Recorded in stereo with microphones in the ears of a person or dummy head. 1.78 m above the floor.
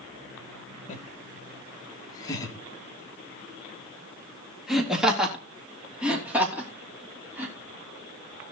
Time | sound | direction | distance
0.9 | laughter | 40° left (ahead or behind) | 2 m